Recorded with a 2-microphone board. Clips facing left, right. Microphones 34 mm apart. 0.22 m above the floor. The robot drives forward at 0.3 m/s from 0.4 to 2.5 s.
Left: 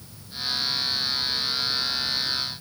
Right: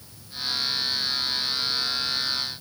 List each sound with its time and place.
Only background noise.